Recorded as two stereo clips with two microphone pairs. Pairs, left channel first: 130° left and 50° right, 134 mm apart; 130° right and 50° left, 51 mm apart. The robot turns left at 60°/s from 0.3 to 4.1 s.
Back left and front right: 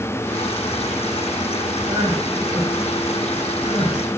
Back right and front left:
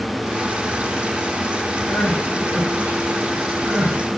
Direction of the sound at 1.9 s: 105° right.